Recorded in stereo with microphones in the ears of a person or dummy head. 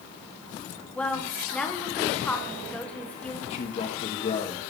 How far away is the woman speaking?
About 1.1 m.